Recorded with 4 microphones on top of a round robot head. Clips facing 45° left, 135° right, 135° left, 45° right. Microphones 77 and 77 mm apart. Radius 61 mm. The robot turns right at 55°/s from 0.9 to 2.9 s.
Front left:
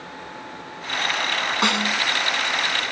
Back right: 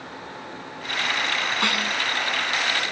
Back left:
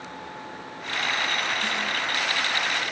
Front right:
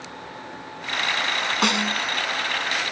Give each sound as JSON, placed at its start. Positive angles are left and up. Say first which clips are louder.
{"t": 1.6, "sound": "a snare drum", "louder": "front left 3 dB, front right 5 dB", "azimuth_deg": -25}